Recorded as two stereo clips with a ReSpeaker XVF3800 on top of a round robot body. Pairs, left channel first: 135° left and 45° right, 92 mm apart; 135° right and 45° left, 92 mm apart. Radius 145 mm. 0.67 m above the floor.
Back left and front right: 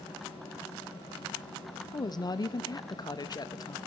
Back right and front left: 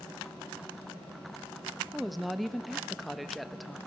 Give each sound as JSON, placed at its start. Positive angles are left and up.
{"t": 1.9, "sound": "a woman speaking", "azimuth_deg": 135, "distance_m": 1.1}